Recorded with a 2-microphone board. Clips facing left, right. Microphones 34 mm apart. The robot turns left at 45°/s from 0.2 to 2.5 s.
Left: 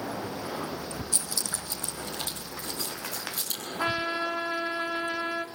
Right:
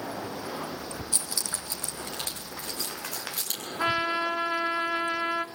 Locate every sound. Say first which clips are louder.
1.1 s keys jangling: even; 25° right (ahead or behind), 4 m; by 3.7 s 80° right, 4 m
3.8 s a trumpet: right 2 dB; 25° right (ahead or behind), 1.0 m